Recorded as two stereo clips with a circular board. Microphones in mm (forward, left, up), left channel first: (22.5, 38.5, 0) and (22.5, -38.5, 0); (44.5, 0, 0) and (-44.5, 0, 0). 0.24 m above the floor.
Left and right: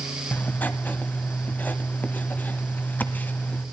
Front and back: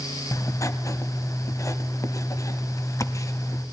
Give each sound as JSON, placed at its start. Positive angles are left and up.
{"t": 0.3, "sound": "writing", "azimuth_deg": 35, "distance_m": 0.7}